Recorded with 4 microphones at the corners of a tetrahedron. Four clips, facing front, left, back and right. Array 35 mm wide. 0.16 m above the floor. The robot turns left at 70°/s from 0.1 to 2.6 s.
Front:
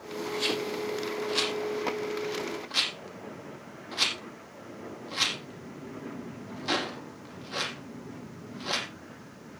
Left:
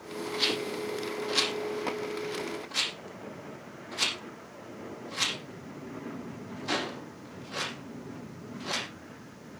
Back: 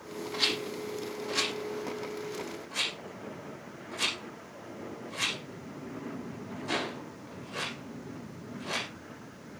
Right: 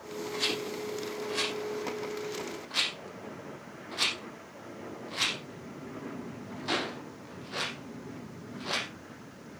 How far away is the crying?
No crying in this recording.